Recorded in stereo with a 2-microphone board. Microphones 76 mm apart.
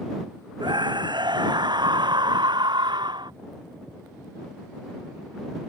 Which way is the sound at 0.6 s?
80° right.